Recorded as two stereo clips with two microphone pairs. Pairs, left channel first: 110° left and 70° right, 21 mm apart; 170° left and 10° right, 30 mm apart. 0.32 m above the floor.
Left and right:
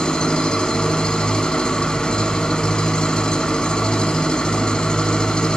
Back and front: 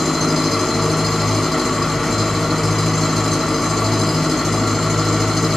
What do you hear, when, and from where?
0.0 s an engine running: 80° left, 0.7 m